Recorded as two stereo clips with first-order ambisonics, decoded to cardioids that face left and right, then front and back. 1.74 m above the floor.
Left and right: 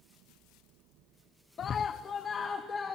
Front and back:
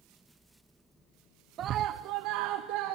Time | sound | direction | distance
1.6 | a scream | 140° left | 0.6 m